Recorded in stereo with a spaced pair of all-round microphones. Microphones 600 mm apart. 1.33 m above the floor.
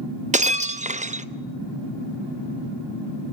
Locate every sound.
0.3 s breaking glass: 10° right (ahead or behind), 0.7 m